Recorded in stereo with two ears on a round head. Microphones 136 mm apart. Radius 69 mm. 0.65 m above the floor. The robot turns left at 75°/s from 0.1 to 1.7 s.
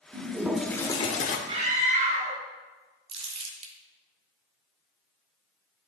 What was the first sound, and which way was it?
A toilet flushing, 145° right.